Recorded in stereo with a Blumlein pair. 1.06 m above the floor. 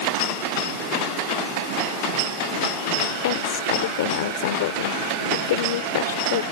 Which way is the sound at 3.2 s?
55° left.